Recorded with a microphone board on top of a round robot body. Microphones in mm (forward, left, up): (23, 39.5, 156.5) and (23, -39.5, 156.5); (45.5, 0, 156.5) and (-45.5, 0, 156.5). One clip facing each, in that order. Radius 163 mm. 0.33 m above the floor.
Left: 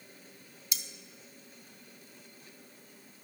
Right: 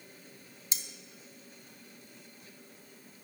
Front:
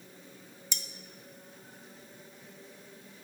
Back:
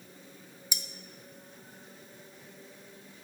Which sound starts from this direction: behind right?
Cutlery clinking, at 0.7 s.